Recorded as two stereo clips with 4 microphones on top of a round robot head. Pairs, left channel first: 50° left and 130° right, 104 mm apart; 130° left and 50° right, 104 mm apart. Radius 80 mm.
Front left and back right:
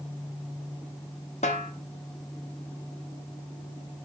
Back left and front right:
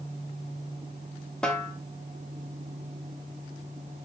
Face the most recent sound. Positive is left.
turn(degrees=50)